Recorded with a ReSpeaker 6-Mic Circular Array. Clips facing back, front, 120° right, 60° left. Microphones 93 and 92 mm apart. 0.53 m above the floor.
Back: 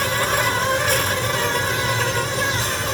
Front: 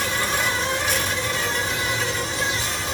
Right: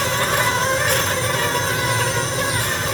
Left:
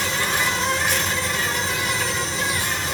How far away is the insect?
About 1.0 m.